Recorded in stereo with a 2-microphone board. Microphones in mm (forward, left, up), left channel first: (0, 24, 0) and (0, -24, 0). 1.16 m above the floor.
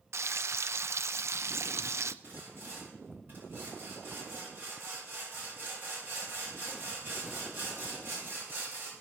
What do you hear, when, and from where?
0.1 s frying: 70° right (ahead or behind), 0.5 m
2.2 s sawing: 40° right (ahead or behind), 7 m